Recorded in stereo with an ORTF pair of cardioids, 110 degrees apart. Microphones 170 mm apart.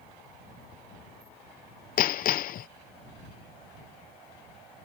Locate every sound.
2.0 s hammering: 60° left